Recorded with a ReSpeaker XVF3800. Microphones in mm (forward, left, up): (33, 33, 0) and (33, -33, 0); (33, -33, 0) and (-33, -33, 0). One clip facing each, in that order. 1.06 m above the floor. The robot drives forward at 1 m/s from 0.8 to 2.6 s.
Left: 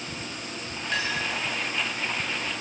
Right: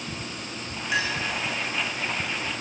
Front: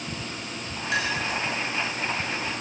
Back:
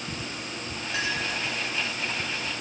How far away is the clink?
About 6.5 m.